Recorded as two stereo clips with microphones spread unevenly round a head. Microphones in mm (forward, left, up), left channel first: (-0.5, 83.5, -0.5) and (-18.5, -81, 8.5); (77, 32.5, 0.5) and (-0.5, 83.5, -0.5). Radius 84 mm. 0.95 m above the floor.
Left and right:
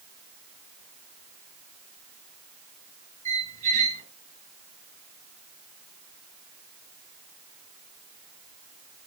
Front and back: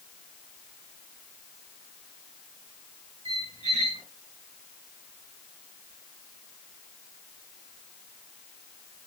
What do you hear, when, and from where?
3.2 s a squeak: 140° right, 6 m